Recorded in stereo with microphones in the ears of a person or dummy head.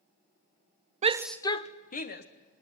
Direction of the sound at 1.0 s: 40° right (ahead or behind).